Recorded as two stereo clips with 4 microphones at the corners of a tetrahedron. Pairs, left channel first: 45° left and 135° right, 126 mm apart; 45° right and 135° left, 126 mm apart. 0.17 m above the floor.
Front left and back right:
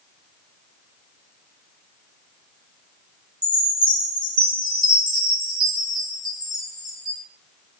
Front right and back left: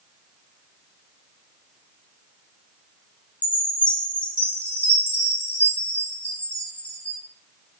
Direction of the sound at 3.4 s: 115° right.